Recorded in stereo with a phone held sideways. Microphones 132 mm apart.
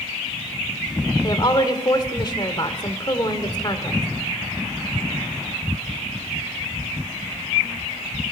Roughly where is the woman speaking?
Left.